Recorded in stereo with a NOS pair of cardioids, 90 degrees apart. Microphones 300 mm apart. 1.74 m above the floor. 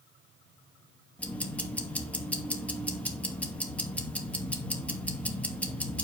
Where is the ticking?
5° left, 2.5 m.